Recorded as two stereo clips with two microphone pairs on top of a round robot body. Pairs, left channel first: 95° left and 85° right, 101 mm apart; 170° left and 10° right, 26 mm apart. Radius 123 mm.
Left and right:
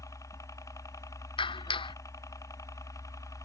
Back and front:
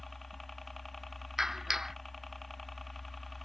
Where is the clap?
65° left.